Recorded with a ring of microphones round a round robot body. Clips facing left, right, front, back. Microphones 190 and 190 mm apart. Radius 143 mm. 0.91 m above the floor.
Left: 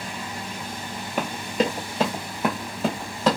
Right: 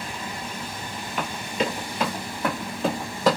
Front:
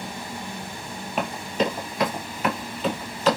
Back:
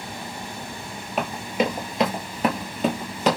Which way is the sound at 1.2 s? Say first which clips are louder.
Left 3 dB, back 1 dB; 90° left.